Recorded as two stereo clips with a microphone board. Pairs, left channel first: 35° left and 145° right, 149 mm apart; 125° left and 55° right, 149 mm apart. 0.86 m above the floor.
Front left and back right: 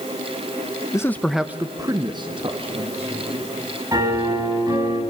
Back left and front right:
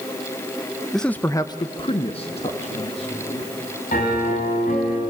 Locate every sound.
0.9 s a man speaking: 35° left, 0.9 m; by 3.5 s 170° left, 2.5 m
3.9 s a piano: 150° left, 5 m